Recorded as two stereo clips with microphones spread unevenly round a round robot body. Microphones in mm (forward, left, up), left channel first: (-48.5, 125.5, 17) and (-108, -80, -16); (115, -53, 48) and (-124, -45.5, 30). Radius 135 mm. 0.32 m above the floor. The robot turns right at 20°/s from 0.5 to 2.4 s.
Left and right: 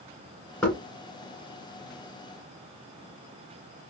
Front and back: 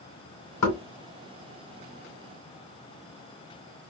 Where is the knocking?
10° right, 2 m.